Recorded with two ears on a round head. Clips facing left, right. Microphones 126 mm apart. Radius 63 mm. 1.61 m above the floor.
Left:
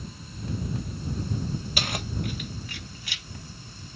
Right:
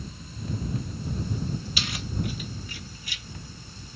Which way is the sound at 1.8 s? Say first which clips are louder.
Left 1 dB; 40° left (ahead or behind).